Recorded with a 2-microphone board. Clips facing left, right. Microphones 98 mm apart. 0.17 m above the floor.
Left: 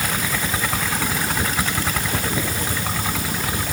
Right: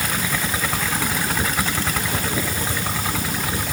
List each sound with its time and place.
Only background noise.